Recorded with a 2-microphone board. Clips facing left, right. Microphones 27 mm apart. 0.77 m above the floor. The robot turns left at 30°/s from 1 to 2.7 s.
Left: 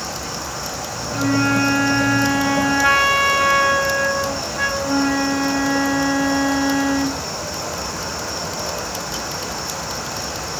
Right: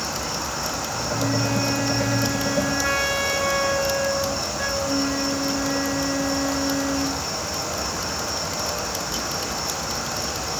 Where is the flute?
120° left, 2 m; by 7.2 s 75° left, 2 m.